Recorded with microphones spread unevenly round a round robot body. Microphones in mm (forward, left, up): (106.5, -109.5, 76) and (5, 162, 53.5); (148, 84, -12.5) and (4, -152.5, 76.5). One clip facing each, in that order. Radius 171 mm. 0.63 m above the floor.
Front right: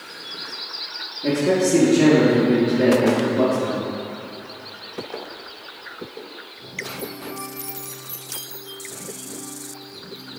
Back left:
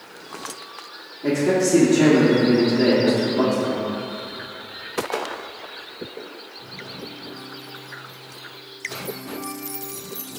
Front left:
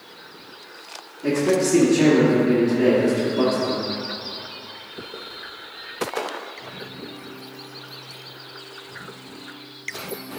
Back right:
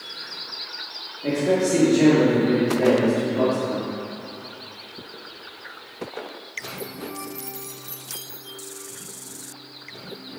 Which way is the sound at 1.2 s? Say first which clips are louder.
Even, front left 1 dB; 15° left.